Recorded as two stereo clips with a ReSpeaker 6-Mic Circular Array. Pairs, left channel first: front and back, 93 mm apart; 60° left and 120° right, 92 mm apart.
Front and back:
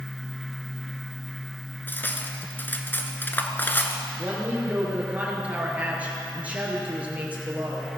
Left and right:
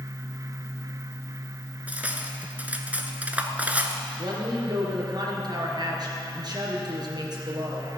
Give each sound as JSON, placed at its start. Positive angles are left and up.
{"t": 1.9, "sound": "cutlery clinking", "azimuth_deg": -55, "distance_m": 0.8}
{"t": 4.2, "sound": "a woman speaking", "azimuth_deg": -110, "distance_m": 2.5}